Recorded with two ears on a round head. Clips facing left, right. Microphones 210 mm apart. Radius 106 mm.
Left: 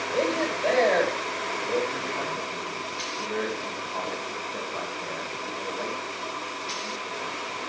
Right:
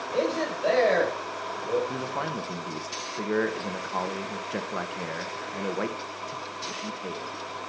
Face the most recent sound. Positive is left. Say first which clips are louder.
# even
turn(degrees=-65)  # may be behind; listen again after turning